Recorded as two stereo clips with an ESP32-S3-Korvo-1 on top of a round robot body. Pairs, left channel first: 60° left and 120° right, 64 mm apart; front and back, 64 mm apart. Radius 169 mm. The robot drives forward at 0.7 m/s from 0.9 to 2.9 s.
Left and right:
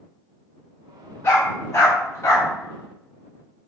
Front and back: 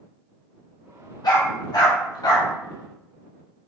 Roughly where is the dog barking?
Ahead.